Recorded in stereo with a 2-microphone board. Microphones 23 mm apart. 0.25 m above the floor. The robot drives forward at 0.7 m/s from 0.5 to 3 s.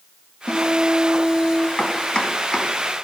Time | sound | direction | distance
0.5 | a guitar | 75° left (ahead or behind) | 6 m
1.8 | chopping | 45° left (ahead or behind) | 2 m